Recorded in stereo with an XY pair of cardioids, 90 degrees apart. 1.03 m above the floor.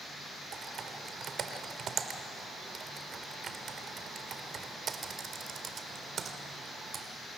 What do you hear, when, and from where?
0.5 s typing on a keyboard: 60° right, 1.9 m